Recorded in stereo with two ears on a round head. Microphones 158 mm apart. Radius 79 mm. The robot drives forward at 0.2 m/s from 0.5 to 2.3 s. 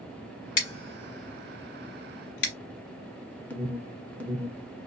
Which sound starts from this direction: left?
Scissors, at 0.6 s.